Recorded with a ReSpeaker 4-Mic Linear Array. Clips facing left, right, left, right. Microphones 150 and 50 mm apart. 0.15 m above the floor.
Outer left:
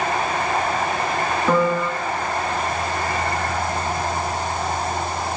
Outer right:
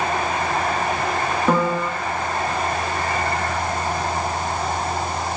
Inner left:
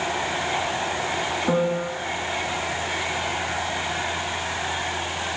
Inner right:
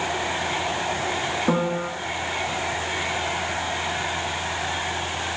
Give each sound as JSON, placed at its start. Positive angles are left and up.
{"t": 1.5, "sound": "a piano", "side_deg": -10, "distance_m": 0.6}